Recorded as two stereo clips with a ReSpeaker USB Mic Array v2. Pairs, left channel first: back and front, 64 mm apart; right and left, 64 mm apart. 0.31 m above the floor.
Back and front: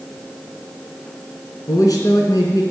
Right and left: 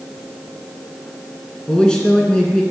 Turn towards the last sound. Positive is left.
turn(degrees=-165)